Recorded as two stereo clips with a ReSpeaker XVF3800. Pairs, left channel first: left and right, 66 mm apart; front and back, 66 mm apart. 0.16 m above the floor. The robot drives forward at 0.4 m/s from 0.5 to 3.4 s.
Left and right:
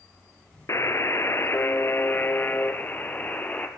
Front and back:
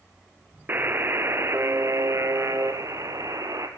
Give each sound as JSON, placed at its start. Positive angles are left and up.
{"t": 0.7, "sound": "a buzzer", "azimuth_deg": 125, "distance_m": 1.3}